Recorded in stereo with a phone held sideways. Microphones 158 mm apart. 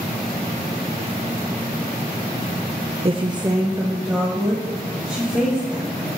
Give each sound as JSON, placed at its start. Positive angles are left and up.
{"t": 3.0, "sound": "a woman speaking", "side_deg": -40, "distance_m": 0.6}